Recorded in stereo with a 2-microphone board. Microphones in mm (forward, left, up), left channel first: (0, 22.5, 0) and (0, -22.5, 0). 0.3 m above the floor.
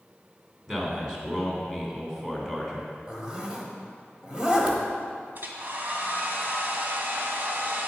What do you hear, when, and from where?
0.7 s a man speaking: 10° right (ahead or behind), 3 m
3.1 s a zipper: 20° right (ahead or behind), 1.5 m
5.3 s a hair dryer: 45° right (ahead or behind), 1.3 m